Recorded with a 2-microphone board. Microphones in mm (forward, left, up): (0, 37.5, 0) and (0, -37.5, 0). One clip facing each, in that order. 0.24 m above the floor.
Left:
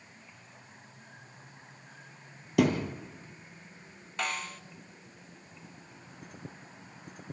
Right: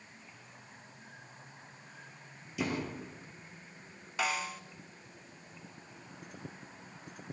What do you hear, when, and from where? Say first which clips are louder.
2.6 s a thud: left 9 dB; 70° left (ahead or behind), 3 m
4.2 s a snare drum: right 1 dB; 5° right (ahead or behind), 0.7 m